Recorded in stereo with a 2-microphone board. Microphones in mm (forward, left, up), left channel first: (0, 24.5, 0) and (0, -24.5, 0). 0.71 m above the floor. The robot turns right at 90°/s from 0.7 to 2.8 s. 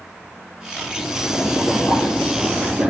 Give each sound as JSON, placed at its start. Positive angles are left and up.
{"t": 0.8, "sound": "boiling", "azimuth_deg": 35, "distance_m": 7.0}